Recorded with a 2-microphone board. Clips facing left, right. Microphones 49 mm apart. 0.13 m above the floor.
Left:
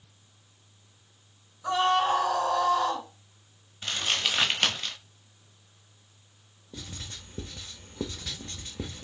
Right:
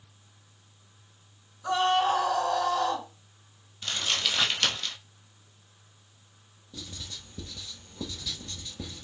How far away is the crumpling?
About 1.0 m.